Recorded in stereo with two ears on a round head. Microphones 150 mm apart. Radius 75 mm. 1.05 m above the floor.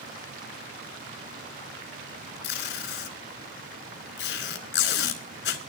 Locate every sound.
2.4 s tape being pulled: 75° left (ahead or behind), 4 m